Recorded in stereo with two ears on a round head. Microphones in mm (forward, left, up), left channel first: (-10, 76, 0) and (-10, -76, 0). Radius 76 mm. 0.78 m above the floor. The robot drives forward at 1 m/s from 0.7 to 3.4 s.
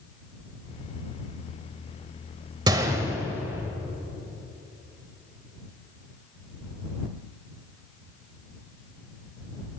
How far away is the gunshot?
About 1.1 m.